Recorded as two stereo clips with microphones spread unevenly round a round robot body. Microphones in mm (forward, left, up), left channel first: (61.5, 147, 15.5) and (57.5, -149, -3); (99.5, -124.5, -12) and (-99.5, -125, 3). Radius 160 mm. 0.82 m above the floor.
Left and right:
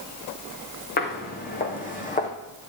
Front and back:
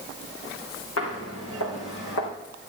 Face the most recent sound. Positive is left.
turn(degrees=25)